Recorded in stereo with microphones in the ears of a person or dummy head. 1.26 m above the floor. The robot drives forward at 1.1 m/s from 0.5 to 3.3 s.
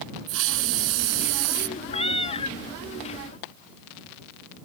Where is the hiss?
75° right (ahead or behind); by 1.7 s 70° right (ahead or behind).